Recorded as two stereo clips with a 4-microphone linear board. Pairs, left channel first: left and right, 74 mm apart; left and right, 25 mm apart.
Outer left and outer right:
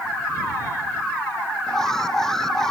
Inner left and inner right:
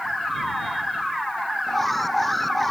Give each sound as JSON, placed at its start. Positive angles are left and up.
{"t": 1.7, "sound": "an alarm", "side_deg": 5}